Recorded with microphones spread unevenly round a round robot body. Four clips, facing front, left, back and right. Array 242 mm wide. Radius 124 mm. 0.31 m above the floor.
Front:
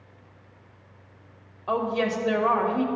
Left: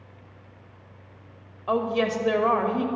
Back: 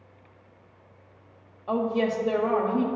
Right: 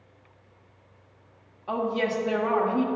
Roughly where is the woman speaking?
Left.